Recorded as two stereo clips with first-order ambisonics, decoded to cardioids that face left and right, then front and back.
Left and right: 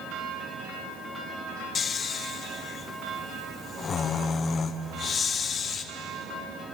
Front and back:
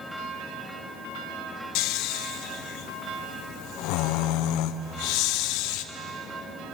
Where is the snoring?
25° left, 0.9 m.